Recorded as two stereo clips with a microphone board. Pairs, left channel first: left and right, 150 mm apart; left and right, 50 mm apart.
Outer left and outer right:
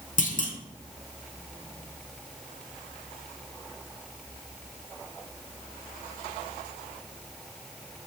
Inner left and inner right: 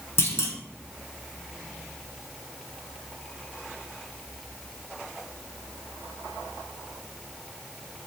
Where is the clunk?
60° left (ahead or behind), 0.5 m.